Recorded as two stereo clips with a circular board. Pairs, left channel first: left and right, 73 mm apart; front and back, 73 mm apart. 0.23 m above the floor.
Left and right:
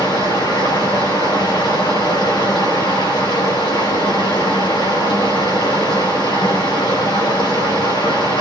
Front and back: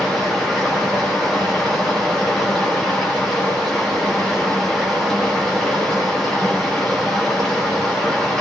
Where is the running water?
85° left, 8.5 m.